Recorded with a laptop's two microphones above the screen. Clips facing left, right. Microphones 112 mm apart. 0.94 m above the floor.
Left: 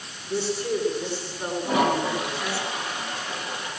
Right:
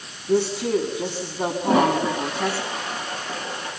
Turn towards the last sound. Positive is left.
turn(degrees=-40)  # may be behind; listen again after turning